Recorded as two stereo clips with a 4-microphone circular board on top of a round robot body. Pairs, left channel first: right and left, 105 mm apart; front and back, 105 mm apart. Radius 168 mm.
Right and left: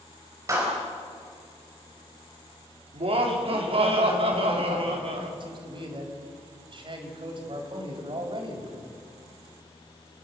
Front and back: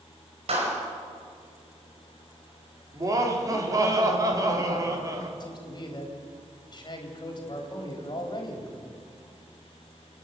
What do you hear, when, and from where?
0.5 s a clap: 150° left, 4.5 m
2.9 s laughter: 120° left, 3.5 m
5.4 s a man speaking: 50° left, 4 m